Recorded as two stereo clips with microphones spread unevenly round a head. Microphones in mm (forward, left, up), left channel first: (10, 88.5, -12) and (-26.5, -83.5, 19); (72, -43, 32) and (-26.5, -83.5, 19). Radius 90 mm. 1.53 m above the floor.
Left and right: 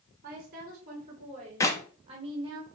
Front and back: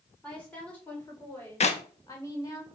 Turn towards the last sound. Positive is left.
turn(degrees=0)